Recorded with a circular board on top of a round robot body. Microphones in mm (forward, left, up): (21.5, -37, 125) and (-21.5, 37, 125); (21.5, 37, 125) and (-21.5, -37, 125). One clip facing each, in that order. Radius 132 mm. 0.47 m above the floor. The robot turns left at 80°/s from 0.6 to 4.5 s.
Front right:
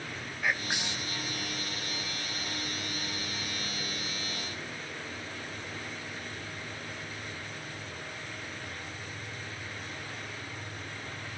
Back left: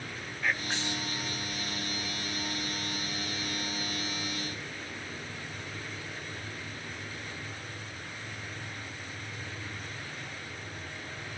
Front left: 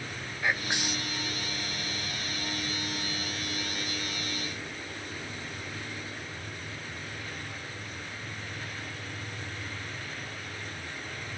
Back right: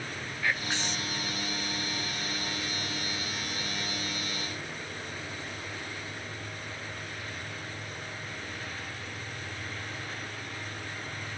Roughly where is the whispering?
Ahead.